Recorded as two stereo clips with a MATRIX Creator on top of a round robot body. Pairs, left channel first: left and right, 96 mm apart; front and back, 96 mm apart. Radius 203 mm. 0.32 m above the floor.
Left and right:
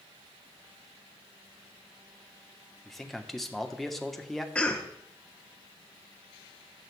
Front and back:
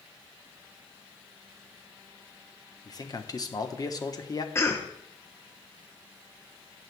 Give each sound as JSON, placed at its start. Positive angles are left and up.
{"t": 2.9, "sound": "a man speaking", "azimuth_deg": 5, "distance_m": 1.3}
{"t": 4.5, "sound": "a cough", "azimuth_deg": 25, "distance_m": 1.2}